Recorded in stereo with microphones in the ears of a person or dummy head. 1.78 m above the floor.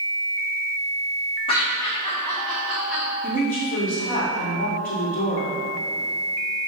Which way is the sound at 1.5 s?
25° left (ahead or behind).